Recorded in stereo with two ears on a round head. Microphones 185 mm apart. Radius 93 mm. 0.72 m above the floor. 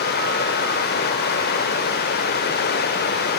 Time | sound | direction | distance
0.0 | running water | 50° left (ahead or behind) | 0.9 m